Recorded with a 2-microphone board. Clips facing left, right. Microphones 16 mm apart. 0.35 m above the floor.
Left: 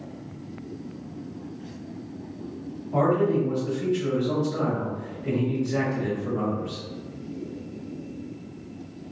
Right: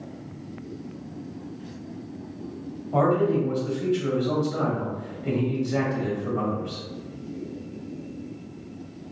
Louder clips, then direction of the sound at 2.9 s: Right 1 dB; 45° right (ahead or behind).